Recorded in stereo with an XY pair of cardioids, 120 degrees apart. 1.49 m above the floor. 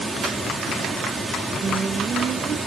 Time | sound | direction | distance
0.0 | running water | 20° right | 3 m
1.6 | singing | 45° right | 1.8 m